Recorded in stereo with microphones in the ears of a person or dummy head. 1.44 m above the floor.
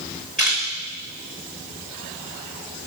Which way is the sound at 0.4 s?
5° left (ahead or behind).